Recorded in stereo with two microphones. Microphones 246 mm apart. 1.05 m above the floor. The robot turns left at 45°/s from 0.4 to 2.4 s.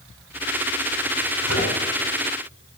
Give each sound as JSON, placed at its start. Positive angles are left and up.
{"t": 1.4, "sound": "a microwave", "side_deg": 85, "distance_m": 7.0}